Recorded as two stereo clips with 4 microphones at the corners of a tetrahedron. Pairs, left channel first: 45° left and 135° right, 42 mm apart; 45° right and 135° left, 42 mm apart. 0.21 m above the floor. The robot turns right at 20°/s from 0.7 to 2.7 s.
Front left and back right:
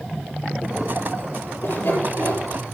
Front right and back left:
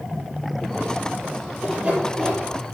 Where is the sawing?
65° left, 6 m; by 2.4 s 80° left, 6 m.